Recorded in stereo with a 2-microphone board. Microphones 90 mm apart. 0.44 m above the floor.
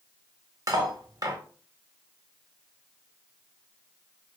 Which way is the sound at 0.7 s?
40° right (ahead or behind).